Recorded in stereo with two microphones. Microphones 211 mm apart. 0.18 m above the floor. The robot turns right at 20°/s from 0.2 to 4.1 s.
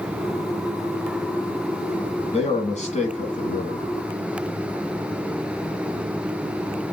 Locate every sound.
2.3 s a man speaking: 60° left, 1.2 m; by 3.9 s 90° left, 1.2 m